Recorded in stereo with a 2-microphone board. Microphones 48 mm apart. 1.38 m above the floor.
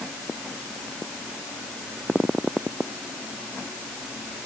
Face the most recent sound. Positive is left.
No sound to turn to.